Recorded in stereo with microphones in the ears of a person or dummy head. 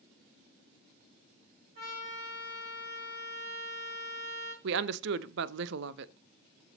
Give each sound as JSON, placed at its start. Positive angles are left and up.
{"t": 1.8, "sound": "a trumpet", "side_deg": -55, "distance_m": 5.0}
{"t": 4.6, "sound": "a woman speaking", "side_deg": -60, "distance_m": 0.5}